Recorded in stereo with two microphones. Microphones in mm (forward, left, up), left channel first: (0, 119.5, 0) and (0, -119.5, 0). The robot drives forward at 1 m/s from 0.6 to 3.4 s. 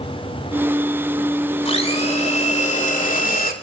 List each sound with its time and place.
1.6 s a blender: 25° left (ahead or behind), 5 m; by 3.5 s 40° left (ahead or behind), 3.5 m